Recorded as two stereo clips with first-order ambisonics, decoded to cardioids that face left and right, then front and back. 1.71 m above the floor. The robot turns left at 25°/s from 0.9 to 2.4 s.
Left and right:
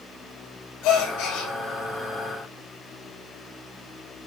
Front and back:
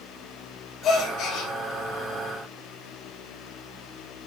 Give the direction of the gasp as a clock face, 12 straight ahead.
10 o'clock.